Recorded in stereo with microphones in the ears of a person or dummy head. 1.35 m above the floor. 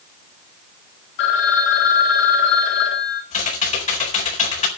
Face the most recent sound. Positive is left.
turn(degrees=35)  # may be behind; listen again after turning